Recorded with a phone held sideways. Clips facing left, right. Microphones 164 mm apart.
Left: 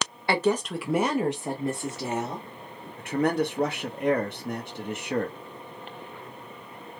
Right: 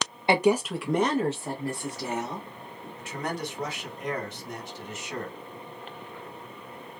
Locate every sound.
0.3 s a woman speaking: 20° right (ahead or behind), 0.6 m; by 2.5 s 30° left (ahead or behind), 1.6 m
3.0 s a man speaking: 60° left (ahead or behind), 1.1 m